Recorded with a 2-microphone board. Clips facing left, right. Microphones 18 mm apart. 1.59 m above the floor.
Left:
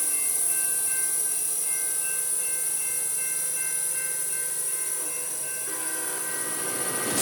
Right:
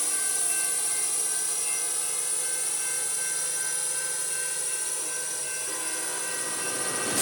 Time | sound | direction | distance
0.0 | a drone | 30° right (ahead or behind) | ?